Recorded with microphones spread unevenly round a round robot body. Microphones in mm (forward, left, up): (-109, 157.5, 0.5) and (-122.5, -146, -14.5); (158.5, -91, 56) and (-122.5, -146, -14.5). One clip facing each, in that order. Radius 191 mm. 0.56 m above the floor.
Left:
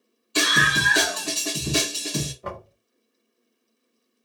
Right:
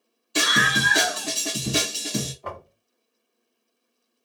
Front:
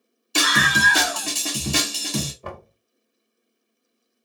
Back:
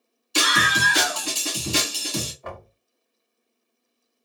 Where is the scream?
25° right, 2 m.